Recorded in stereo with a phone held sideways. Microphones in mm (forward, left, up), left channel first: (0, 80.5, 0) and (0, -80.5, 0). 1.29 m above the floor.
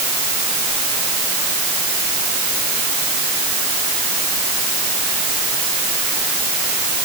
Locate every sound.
Only background noise.